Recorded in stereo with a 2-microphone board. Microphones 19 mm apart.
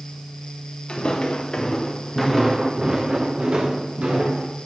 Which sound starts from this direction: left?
Footsteps, at 0.9 s.